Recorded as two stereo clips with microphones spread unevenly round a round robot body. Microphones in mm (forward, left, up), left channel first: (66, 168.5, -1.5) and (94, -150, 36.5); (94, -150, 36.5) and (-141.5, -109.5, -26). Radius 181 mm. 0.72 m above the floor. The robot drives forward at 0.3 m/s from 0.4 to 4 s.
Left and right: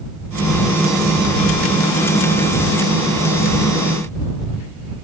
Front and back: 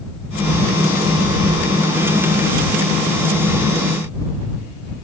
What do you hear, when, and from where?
Only background noise.